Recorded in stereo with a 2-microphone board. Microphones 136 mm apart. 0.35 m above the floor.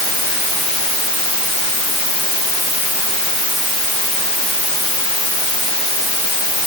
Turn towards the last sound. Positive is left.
No sound to turn to.